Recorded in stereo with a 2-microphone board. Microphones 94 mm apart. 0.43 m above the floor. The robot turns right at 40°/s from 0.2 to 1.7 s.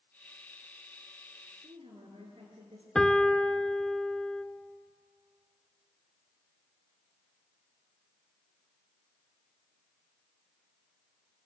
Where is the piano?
5° left (ahead or behind), 0.7 m.